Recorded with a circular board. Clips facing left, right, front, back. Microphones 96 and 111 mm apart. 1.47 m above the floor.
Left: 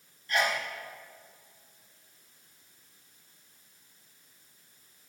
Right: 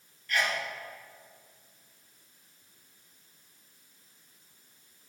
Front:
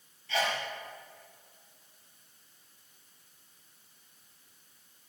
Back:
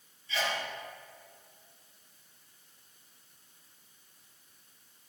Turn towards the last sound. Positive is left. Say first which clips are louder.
# left 2 dB, front 2 dB
turn(degrees=25)